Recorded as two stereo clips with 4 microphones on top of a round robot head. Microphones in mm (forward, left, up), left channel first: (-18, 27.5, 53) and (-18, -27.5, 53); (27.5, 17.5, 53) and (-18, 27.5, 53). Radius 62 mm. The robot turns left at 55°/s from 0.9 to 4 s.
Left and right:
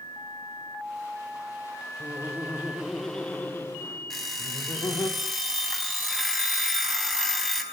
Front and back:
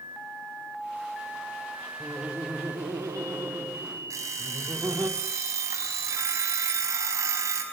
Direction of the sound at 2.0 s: 130° right.